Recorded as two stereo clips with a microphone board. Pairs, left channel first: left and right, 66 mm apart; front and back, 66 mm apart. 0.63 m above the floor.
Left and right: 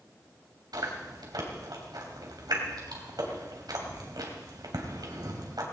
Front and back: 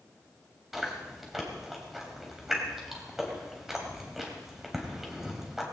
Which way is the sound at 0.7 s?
95° right.